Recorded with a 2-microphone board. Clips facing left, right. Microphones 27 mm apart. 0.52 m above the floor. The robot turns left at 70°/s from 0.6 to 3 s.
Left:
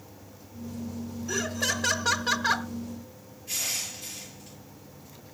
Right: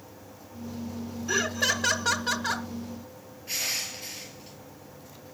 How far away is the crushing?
About 5 m.